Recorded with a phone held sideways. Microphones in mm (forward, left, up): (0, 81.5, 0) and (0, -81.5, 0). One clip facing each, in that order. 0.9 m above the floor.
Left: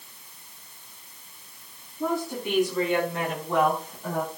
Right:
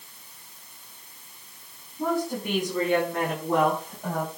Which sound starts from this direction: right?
A woman speaking, at 2.0 s.